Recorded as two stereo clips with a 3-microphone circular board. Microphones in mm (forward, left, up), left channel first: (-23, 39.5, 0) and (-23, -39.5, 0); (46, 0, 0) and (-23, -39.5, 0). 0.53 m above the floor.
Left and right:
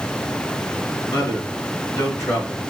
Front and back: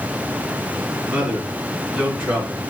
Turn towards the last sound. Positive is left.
turn(degrees=140)